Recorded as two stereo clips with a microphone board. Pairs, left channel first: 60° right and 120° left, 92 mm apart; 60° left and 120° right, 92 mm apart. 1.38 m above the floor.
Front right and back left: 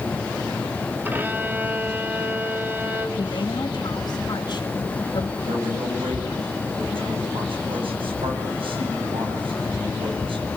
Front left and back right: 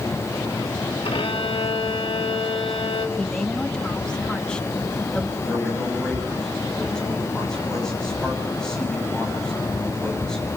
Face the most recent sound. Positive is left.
turn(degrees=145)